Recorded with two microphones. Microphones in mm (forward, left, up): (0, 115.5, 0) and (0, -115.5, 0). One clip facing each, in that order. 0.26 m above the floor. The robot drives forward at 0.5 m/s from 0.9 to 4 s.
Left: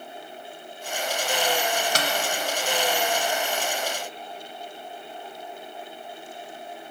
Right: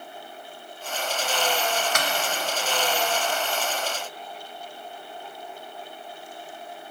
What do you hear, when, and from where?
1.9 s a snare drum: 35° left (ahead or behind), 0.7 m